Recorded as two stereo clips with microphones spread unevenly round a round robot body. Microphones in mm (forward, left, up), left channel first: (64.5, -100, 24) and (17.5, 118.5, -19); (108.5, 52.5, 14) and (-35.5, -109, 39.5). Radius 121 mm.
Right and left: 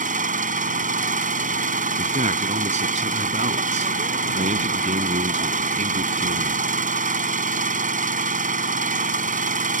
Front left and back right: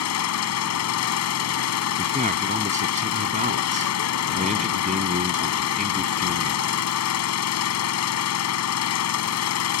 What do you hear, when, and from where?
0.0 s an engine running: 45° left
2.0 s a man speaking: 165° left